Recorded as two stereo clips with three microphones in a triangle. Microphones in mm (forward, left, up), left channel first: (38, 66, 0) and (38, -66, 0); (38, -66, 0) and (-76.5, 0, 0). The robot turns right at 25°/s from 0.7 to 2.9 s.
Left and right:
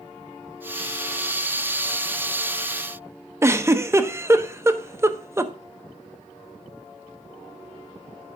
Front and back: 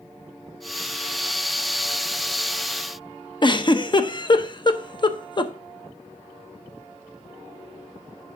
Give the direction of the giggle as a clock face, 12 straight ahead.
1 o'clock.